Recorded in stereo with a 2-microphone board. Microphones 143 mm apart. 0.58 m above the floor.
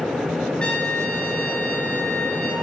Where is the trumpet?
5° left (ahead or behind), 2 m.